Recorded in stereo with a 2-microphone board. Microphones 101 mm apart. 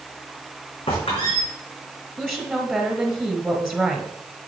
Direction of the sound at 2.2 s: 15° right (ahead or behind).